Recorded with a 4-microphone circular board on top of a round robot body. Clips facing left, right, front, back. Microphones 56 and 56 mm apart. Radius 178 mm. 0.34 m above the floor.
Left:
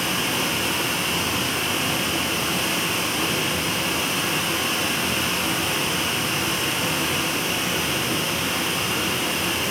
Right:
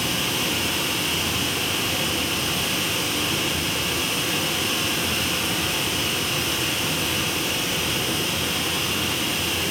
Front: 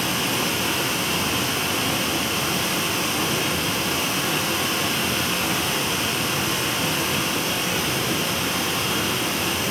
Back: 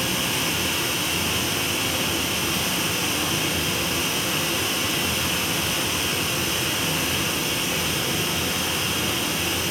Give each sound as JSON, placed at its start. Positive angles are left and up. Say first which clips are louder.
{"t": 0.0, "sound": "running water", "louder": "left 1 dB, front 2 dB", "azimuth_deg": 25, "distance_m": 8.0}